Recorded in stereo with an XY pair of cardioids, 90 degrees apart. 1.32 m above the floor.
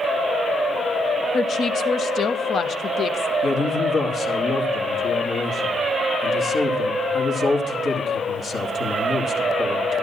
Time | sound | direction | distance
1.3 | a woman speaking | 60° left | 1.2 m
3.4 | a man speaking | 65° left | 2.5 m